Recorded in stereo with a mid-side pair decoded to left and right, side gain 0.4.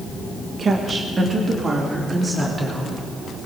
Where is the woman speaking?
50° right, 1.3 m; by 2.9 s 30° right, 3.5 m.